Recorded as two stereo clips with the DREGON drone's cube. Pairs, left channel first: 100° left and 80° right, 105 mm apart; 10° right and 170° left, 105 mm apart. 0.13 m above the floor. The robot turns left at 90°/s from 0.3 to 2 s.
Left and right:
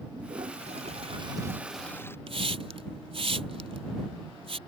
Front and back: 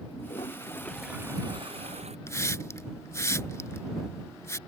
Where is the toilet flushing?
35° right; by 2.2 s 170° left.